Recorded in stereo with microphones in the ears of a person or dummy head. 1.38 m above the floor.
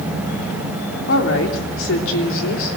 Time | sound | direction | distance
1.1 | a woman speaking | 85° left | 3 m